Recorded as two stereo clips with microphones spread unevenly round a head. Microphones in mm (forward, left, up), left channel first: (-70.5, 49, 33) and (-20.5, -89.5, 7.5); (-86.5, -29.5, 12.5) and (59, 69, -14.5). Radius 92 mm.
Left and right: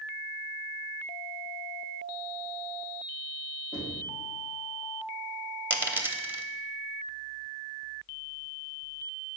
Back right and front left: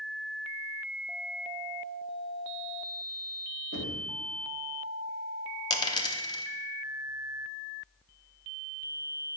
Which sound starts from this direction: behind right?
A dropped coin, at 5.7 s.